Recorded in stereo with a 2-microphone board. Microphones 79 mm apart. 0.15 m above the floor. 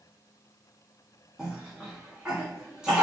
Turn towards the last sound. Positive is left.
turn(degrees=-10)  # may be behind; listen again after turning